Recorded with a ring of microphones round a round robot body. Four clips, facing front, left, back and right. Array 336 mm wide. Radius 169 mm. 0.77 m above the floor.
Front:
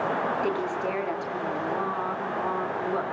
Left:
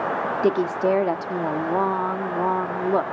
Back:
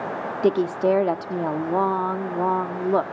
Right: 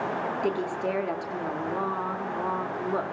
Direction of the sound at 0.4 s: 150° left.